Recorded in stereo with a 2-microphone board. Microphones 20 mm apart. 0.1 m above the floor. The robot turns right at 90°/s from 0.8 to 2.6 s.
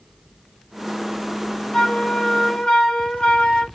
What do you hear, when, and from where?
1.7 s a flute: 45° left, 3 m; by 3.6 s 120° left, 3 m